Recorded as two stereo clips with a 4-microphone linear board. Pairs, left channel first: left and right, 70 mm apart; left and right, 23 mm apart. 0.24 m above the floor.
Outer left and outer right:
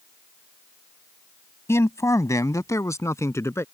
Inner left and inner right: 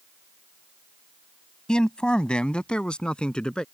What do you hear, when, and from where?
1.7 s a man speaking: 40° left (ahead or behind)